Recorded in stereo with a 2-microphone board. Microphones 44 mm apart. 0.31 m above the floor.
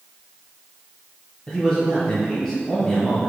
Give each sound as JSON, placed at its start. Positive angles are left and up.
{"t": 1.5, "sound": "a man speaking", "side_deg": 20, "distance_m": 1.1}